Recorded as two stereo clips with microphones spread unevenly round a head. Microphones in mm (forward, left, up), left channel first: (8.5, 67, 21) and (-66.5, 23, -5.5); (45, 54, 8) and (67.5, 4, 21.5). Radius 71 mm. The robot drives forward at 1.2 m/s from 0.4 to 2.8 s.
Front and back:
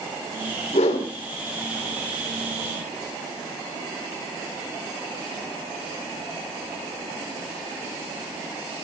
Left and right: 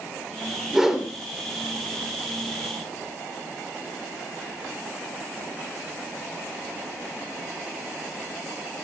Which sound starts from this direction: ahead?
A whoosh, at 0.7 s.